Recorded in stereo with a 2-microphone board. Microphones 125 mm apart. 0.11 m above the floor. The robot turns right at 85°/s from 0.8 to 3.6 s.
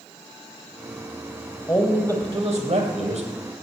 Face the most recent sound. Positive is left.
turn(degrees=-30)